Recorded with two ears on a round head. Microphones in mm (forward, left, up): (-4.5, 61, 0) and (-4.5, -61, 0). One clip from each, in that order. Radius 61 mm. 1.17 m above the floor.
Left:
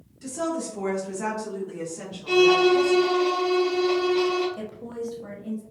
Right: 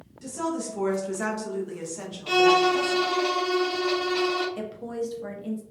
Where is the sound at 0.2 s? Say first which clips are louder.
Left 1 dB; centre (ahead or behind), 0.8 m; by 3.0 s 60° right (ahead or behind), 1.4 m.